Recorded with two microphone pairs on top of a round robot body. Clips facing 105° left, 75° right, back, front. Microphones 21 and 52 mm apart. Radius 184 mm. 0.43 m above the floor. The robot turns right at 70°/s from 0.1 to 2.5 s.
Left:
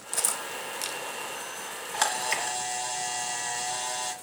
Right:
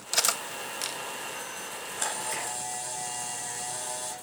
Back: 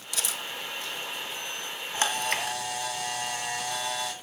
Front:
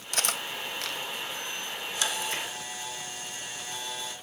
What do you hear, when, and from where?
0.1 s cutlery clinking: 45° right, 1.1 m; by 1.0 s 15° left, 1.1 m
1.9 s a camera shutter: 120° left, 2 m; by 4.1 s 160° left, 2 m